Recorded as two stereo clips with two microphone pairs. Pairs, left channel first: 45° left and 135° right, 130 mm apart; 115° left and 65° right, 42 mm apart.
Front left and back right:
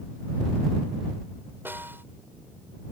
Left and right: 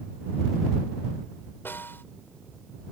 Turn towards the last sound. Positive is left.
turn(degrees=150)